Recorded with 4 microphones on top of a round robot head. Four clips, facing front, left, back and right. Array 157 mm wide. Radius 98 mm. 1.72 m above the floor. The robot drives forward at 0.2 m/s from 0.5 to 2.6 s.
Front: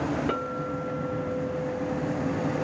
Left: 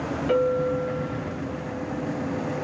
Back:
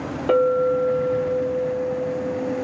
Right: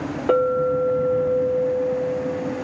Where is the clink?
125° right, 2 m; by 2.6 s 135° right, 2.5 m.